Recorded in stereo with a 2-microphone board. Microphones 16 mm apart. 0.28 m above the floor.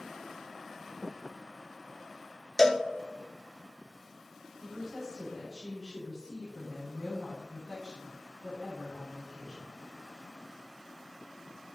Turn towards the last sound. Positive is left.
turn(degrees=0)  # may be behind; listen again after turning